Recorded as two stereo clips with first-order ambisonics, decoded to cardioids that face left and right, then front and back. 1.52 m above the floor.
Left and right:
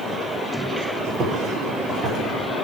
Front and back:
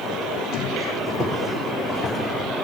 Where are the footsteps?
110° right, 1.9 m; by 2.2 s 55° right, 1.8 m.